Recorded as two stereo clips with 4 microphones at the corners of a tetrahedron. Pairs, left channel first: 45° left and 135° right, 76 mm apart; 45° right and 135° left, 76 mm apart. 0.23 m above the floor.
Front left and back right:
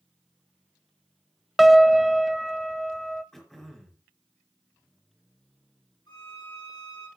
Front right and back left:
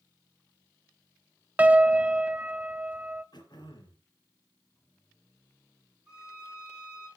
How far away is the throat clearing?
About 4.5 m.